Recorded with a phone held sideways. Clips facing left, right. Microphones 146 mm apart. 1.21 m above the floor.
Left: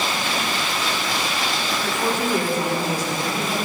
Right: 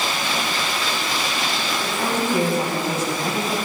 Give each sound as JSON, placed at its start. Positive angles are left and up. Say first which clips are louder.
{"t": 1.8, "sound": "a woman speaking", "louder": "even", "side_deg": -15, "distance_m": 9.5}